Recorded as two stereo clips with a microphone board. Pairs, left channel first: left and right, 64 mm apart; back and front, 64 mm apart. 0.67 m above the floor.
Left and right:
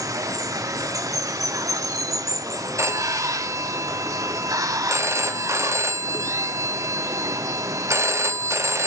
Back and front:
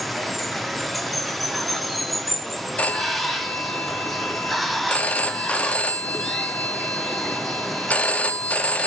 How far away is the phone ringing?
About 0.6 m.